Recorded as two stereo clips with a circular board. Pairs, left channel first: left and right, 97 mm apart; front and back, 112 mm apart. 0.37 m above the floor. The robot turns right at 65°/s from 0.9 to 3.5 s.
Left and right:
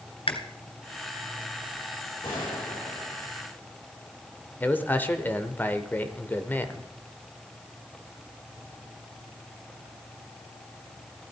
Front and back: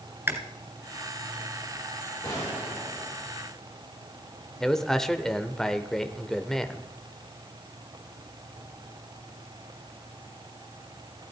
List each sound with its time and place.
0.3 s chewing: 110° left, 1.5 m
2.2 s a gunshot: 55° left, 6.5 m; by 3.2 s 120° left, 6.5 m
4.6 s a man speaking: 80° left, 0.9 m